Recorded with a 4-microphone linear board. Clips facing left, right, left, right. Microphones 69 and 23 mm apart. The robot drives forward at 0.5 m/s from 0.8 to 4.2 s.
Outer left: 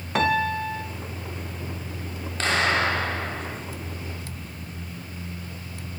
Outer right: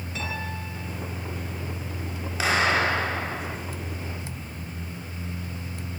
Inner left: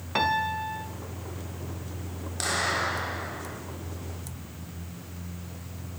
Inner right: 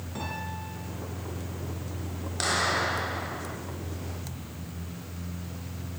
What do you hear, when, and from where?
0.1 s a piano: 60° left (ahead or behind), 2 m
2.4 s a clap: 10° right (ahead or behind), 7 m